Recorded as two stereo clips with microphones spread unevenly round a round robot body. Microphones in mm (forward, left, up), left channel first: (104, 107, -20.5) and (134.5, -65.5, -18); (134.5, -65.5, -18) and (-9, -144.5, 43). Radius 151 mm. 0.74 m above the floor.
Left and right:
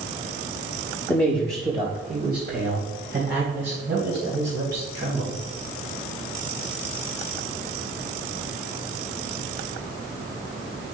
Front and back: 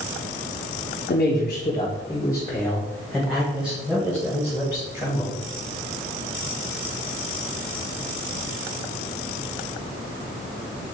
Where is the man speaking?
10° left, 1.6 m; by 5.4 s 75° right, 4.5 m.